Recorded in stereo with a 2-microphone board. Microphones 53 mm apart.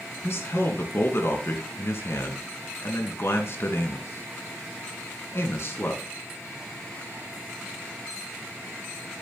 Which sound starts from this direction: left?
A man speaking, at 0.2 s.